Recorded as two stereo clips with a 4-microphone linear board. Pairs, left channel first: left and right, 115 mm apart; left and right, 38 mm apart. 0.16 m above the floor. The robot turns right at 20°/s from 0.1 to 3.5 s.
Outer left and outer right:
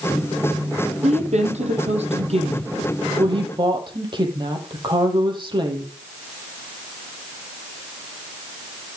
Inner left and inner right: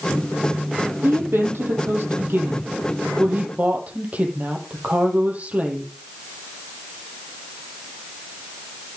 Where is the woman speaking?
95° right, 6.5 m; by 5.9 s 45° right, 6.5 m.